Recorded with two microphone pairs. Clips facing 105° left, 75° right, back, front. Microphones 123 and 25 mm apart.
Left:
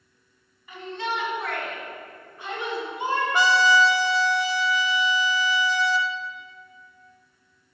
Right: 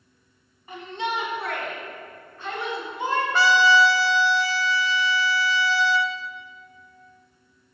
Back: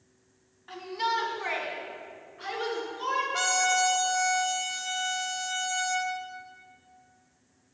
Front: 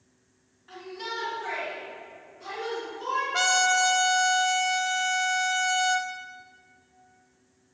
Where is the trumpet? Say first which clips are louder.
Right 1 dB, front 5 dB; 50° left, 0.6 m.